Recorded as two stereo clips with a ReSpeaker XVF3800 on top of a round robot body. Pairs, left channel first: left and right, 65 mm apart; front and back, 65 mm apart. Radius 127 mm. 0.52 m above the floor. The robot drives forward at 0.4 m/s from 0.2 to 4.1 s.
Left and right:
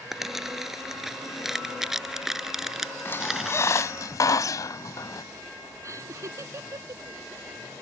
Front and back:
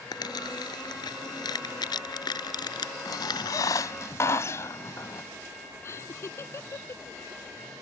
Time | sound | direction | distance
0.1 | crumpling | 5° right | ?
3.0 | a squeak | 35° left | ?
5.8 | laughter | 45° right | ?